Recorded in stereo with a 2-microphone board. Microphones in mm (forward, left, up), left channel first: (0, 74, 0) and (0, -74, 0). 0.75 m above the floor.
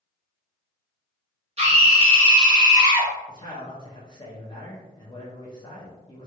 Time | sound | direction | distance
1.6 | a scream | 45° right (ahead or behind) | 1.6 m
3.3 | a man speaking | 30° left (ahead or behind) | 0.7 m